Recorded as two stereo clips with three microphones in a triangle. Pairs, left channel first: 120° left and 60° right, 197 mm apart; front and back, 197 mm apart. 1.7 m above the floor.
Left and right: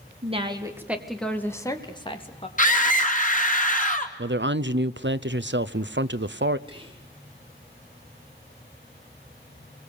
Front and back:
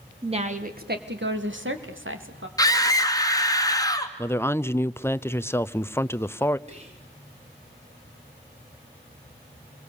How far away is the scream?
About 2.5 m.